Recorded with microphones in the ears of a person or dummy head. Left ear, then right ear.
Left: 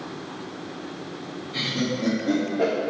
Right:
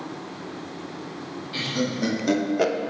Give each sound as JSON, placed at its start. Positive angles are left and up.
{"t": 1.5, "sound": "laughter", "side_deg": -50, "distance_m": 1.4}